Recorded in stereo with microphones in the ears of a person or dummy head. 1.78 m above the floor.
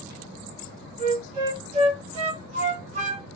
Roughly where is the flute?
Right.